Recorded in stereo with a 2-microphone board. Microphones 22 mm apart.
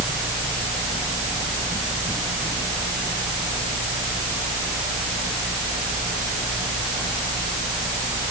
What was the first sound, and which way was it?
Only background noise.